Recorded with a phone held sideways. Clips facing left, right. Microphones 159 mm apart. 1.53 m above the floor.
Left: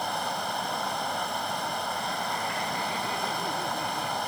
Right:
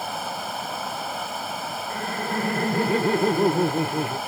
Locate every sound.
0.0 s running water: 5° right (ahead or behind)
1.9 s laughter: 75° right (ahead or behind)